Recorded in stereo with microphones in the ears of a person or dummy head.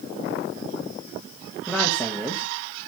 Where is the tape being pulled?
I don't hear tape being pulled.